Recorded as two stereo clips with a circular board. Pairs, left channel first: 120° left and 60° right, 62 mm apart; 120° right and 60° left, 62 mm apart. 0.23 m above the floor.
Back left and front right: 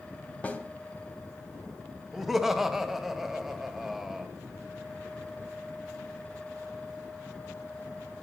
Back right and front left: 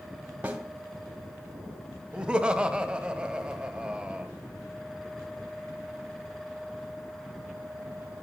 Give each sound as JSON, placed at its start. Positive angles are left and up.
{"t": 0.4, "sound": "a snare drum", "azimuth_deg": 90, "distance_m": 1.7}
{"t": 2.1, "sound": "laughter", "azimuth_deg": 20, "distance_m": 1.1}